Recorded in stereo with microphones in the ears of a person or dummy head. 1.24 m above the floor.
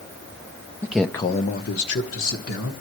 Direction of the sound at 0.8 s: 10° right (ahead or behind).